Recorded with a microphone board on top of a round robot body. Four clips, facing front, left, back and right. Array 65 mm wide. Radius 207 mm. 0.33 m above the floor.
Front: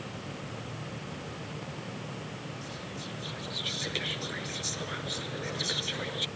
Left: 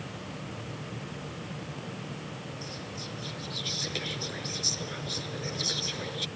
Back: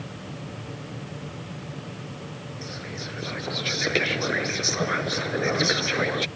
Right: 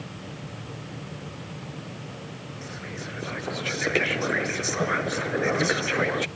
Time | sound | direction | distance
2.6 | whispering | 125° right | ?